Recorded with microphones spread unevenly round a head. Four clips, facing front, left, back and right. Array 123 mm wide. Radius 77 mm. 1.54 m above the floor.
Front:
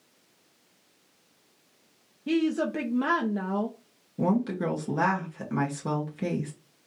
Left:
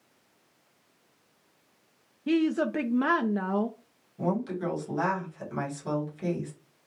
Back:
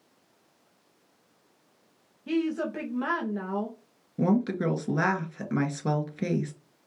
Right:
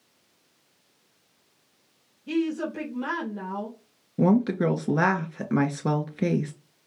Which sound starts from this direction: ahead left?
A woman speaking, at 2.3 s.